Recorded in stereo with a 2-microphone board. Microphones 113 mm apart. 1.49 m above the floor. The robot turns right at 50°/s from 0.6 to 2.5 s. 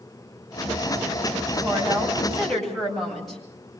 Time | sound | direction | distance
1.6 | a woman speaking | 45° right | 9 m